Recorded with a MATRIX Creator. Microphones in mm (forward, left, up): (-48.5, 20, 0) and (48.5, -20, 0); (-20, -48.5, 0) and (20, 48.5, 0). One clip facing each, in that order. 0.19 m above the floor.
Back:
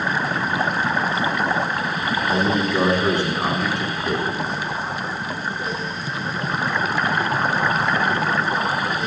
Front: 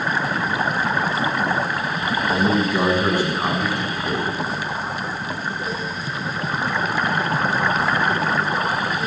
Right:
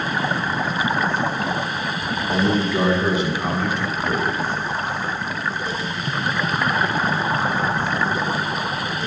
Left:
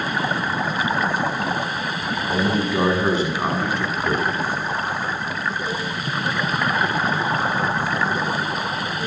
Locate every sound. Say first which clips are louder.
2.0 s a man speaking: front 1 dB, right 2 dB; 85° right, 1.4 m; by 4.2 s 60° left, 3 m